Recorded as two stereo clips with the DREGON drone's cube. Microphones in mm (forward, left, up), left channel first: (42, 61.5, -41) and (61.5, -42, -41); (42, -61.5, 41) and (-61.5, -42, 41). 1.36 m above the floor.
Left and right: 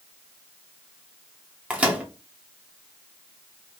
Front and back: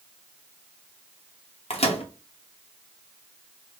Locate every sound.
1.7 s a microwave: straight ahead, 0.8 m